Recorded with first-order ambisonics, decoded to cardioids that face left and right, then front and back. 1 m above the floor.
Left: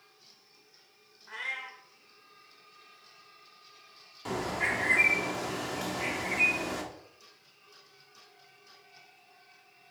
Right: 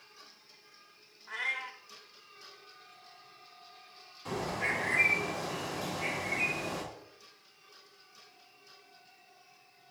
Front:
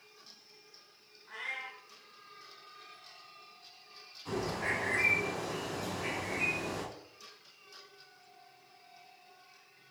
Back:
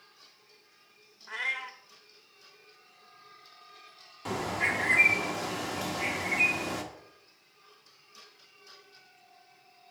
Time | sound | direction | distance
1.3 | a cat meowing | 170° right | 0.8 m
4.2 | a bird | 150° left | 1.2 m